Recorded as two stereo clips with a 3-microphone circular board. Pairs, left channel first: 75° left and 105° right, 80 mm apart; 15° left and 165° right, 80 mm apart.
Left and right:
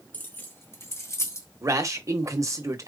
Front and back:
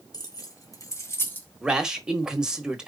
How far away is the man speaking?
About 1.1 m.